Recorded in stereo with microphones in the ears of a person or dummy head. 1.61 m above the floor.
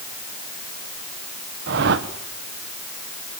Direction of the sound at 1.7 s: 65° right (ahead or behind).